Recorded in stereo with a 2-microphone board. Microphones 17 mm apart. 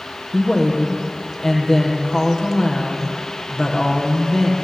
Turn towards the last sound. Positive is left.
turn(degrees=15)  # may be behind; listen again after turning